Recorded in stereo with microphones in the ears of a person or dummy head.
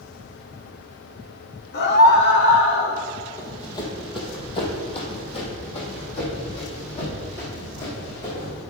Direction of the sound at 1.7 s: 55° left (ahead or behind).